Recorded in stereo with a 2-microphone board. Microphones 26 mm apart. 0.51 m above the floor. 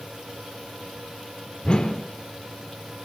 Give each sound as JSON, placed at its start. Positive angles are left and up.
{"t": 1.6, "sound": "a whoosh", "side_deg": 35, "distance_m": 0.7}